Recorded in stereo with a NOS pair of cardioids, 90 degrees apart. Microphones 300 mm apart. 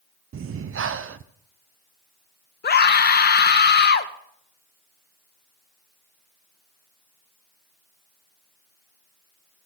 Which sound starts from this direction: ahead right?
Breathing, at 0.3 s.